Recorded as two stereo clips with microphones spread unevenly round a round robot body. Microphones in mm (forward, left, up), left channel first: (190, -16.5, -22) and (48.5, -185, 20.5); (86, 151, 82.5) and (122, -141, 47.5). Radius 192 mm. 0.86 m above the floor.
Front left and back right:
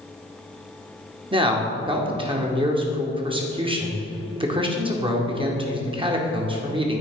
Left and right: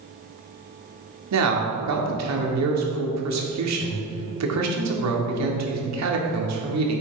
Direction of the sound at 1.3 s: 60° right.